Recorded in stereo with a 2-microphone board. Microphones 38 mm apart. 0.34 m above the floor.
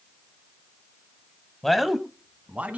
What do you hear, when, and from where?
1.6 s a man speaking: 5° left (ahead or behind), 1.6 m; by 2.8 s 35° right (ahead or behind), 2.5 m